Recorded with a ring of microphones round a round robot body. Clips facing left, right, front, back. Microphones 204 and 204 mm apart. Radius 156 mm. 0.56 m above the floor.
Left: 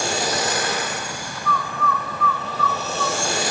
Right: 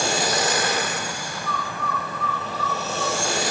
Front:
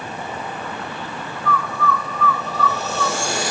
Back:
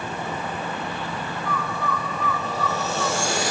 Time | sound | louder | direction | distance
1.4 | a bird | left 6 dB, front 7 dB | 105° left | 0.6 m